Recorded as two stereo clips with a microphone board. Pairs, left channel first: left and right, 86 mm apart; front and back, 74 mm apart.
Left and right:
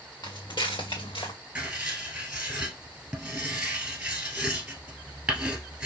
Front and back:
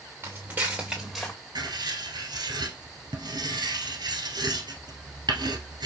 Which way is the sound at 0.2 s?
130° left.